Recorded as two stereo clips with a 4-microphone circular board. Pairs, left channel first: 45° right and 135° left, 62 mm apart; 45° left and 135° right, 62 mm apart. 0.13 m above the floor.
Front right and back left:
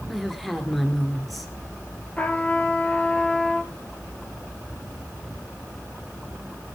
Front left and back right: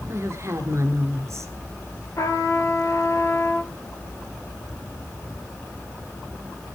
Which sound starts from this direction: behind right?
A woman speaking, at 0.1 s.